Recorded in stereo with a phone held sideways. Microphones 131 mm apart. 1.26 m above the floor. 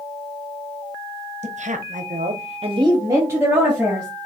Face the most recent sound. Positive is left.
turn(degrees=-5)  # may be behind; listen again after turning